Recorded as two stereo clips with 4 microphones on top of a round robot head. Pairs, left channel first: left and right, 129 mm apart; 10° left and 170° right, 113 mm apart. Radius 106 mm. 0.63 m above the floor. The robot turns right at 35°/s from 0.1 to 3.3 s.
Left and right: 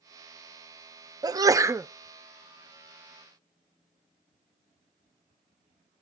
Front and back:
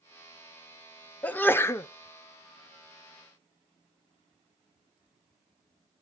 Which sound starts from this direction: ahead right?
A sneeze, at 1.2 s.